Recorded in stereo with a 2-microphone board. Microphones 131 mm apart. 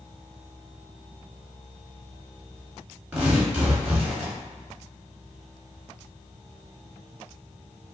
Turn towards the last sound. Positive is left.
turn(degrees=-10)  # may be behind; listen again after turning